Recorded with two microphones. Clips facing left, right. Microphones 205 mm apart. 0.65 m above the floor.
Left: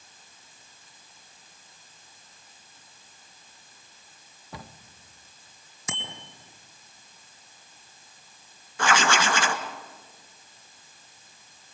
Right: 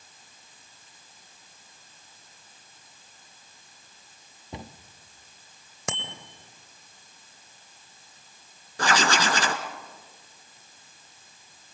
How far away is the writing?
About 1.8 m.